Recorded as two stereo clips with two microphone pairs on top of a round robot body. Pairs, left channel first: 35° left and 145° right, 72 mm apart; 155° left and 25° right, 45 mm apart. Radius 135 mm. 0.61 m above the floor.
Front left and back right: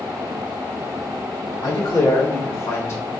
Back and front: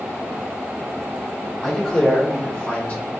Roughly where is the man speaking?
Ahead left.